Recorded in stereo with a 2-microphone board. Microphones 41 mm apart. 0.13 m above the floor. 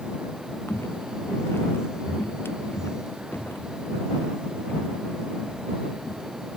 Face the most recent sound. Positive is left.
turn(degrees=75)  # may be behind; listen again after turning